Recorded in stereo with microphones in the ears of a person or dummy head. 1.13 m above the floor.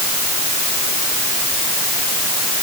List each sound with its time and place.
Only background noise.